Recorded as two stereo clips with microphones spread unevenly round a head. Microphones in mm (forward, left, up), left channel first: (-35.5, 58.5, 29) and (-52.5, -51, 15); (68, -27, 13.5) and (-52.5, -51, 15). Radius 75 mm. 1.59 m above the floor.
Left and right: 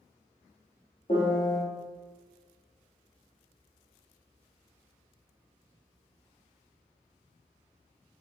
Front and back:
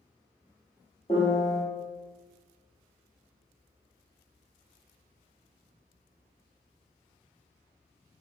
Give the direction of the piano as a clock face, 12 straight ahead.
10 o'clock.